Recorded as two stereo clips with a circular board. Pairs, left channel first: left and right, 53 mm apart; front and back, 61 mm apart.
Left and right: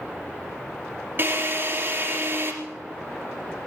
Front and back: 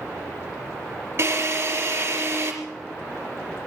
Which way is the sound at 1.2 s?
135° right.